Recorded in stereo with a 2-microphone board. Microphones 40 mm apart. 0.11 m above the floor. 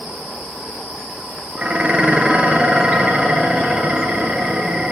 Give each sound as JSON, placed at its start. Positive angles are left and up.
{"t": 1.6, "sound": "dishes clattering", "side_deg": -30, "distance_m": 1.0}